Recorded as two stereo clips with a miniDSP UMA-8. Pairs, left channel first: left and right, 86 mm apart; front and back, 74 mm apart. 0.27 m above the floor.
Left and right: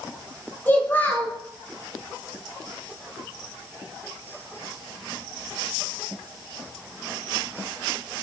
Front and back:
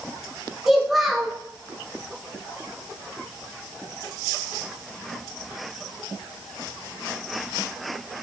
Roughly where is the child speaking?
Left.